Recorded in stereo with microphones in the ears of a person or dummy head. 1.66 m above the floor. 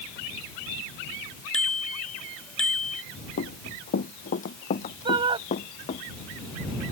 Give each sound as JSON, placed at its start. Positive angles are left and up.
{"t": 1.5, "sound": "a bicycle bell", "side_deg": 5}
{"t": 3.4, "sound": "running footsteps", "side_deg": 45}
{"t": 5.0, "sound": "a shout", "side_deg": -20}